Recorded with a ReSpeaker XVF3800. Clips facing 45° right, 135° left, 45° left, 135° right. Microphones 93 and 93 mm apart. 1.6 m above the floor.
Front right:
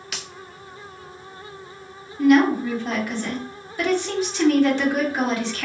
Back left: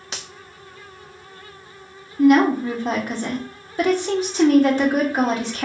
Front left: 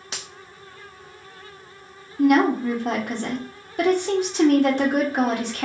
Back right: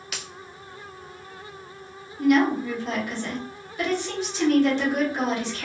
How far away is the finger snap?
About 0.9 m.